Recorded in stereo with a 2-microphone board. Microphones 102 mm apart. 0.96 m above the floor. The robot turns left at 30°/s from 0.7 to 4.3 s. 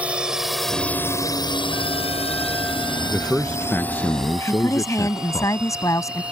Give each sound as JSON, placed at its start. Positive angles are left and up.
{"t": 0.0, "sound": "a drone", "side_deg": -10}
{"t": 3.1, "sound": "a man speaking", "azimuth_deg": 175}
{"t": 4.5, "sound": "a woman speaking", "side_deg": 30}